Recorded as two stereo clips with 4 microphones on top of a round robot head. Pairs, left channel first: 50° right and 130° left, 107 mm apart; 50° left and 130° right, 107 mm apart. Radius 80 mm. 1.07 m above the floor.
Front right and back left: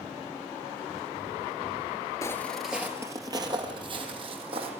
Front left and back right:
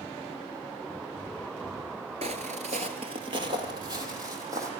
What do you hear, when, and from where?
2.2 s footsteps: 110° right, 1.3 m; by 4.7 s 170° left, 3.5 m